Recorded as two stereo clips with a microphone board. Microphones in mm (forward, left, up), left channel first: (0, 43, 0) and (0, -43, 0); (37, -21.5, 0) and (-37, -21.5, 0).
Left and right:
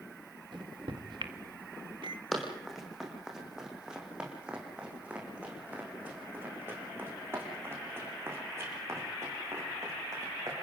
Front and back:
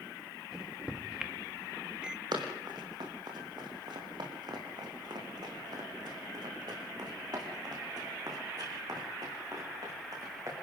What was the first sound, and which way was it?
A microwave, 105° right.